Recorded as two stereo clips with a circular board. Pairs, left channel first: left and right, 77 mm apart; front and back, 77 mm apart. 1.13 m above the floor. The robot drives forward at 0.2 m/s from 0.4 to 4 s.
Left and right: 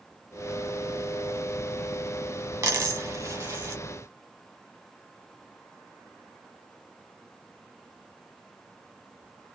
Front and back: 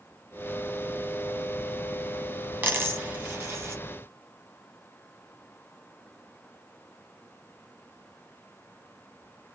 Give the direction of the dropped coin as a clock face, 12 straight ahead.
4 o'clock.